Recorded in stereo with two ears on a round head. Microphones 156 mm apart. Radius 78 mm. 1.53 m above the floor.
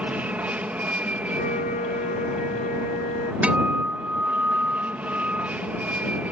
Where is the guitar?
10° right (ahead or behind).